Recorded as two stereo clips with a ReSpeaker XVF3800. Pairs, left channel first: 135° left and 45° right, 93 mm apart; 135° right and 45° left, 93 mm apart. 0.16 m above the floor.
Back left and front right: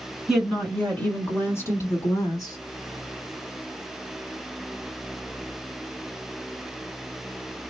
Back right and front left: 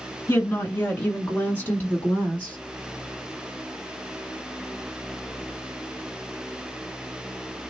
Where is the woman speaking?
125° right, 1.7 m; by 2.6 s 150° left, 2.5 m.